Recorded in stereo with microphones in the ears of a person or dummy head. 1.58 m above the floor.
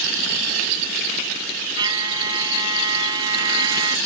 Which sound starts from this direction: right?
A trumpet, at 1.8 s.